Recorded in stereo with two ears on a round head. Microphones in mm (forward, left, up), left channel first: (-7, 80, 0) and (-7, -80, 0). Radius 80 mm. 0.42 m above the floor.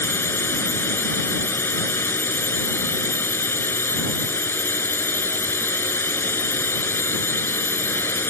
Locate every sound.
0.0 s a drone: 15° left (ahead or behind)